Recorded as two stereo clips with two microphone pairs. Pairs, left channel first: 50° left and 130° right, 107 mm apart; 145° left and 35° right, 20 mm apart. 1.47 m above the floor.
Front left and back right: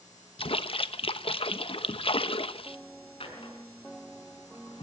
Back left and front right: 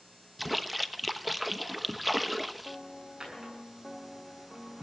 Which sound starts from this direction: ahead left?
A splash, at 0.4 s.